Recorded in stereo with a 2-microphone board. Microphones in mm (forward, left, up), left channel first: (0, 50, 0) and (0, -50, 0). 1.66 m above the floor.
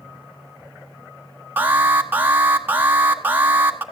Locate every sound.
1.6 s an alarm: 20° right (ahead or behind), 1.4 m